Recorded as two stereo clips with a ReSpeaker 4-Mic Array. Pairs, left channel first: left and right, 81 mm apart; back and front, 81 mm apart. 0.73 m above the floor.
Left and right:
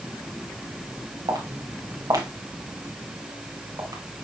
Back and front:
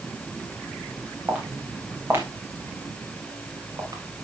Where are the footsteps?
70° right, 3.5 m; by 4.0 s 50° right, 4.5 m.